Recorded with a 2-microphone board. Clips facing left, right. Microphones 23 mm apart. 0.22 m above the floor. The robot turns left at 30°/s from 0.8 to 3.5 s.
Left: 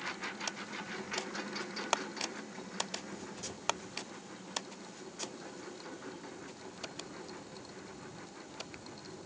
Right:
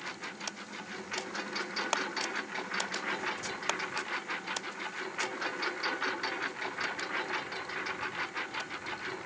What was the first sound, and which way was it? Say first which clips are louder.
A lawn mower: even; 5° right.